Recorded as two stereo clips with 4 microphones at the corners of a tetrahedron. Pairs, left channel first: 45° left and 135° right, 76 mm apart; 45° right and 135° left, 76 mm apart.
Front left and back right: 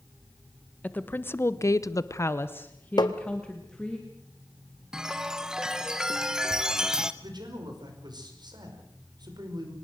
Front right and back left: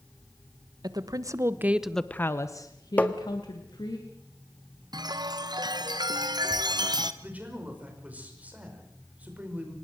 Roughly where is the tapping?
Ahead left.